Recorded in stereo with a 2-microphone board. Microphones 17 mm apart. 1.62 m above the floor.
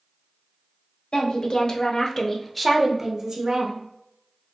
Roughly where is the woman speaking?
Left.